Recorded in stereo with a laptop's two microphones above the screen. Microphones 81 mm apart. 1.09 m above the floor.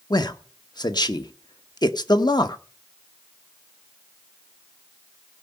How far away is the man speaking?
About 0.9 m.